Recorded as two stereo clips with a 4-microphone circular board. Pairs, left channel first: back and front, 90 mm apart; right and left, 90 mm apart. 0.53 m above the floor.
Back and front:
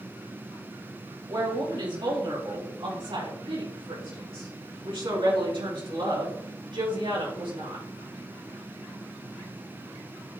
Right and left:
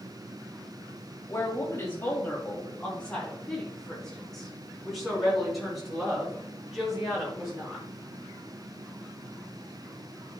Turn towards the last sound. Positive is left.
turn(degrees=5)